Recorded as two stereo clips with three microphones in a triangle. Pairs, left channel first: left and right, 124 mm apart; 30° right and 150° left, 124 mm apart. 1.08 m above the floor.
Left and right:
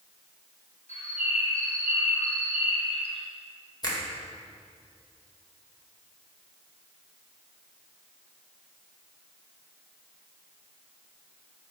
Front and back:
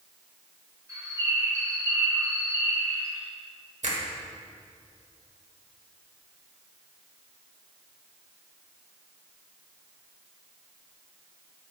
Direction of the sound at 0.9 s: 90° left.